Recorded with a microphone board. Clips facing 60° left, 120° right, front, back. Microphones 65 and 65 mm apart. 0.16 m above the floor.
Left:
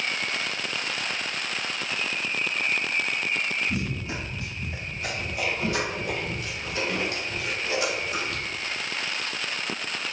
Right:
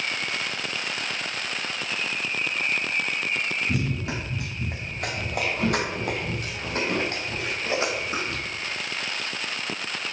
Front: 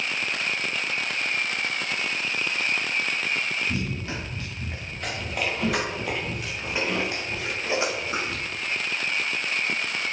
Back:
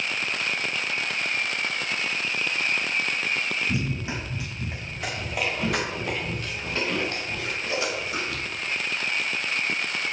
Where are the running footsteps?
110° right, 3.5 m; by 8.4 s 60° right, 3 m.